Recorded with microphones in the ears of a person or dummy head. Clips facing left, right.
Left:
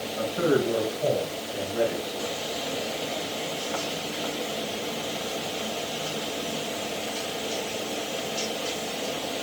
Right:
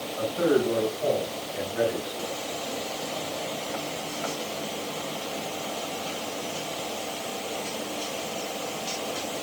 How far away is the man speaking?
About 8.5 m.